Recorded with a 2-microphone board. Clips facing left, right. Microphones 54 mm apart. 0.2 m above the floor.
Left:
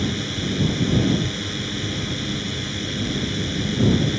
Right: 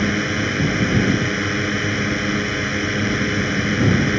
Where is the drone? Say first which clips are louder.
Right 6 dB; 55° right (ahead or behind).